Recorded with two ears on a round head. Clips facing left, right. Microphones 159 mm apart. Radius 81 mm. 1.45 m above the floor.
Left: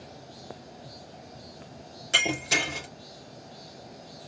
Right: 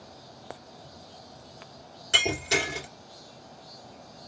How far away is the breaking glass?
About 3 m.